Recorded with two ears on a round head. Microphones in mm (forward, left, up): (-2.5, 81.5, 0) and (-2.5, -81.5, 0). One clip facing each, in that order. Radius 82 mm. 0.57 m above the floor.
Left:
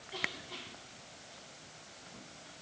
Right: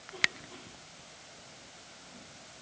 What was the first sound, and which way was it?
Only background noise.